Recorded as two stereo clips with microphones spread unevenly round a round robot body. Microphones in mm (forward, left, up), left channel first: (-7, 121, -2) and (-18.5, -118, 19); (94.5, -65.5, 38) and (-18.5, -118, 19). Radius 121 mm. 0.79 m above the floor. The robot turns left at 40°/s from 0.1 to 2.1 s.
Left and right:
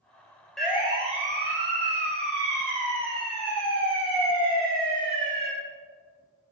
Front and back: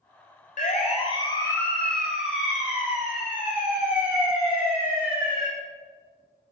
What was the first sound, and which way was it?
A siren, straight ahead.